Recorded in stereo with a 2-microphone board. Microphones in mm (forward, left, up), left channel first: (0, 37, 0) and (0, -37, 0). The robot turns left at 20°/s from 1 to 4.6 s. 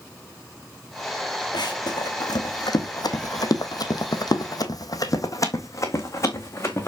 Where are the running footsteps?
75° left (ahead or behind), 2 m; by 6.9 s 35° left (ahead or behind), 2.5 m.